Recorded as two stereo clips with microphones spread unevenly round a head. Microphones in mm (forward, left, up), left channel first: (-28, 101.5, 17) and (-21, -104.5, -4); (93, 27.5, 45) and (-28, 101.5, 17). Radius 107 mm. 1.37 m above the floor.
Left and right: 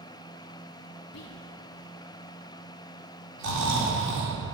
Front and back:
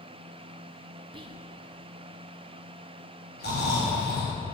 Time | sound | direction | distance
1.1 | whispering | 100° left | 1.2 m
3.4 | snoring | 70° right | 3.5 m